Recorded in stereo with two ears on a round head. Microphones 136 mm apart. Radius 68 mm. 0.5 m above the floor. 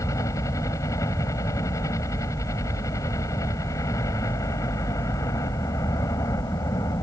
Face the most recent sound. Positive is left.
turn(degrees=20)  # may be behind; listen again after turning